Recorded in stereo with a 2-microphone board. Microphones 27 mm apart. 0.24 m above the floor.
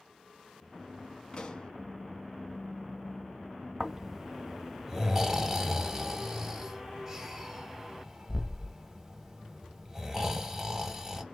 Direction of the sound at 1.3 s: 35° left (ahead or behind).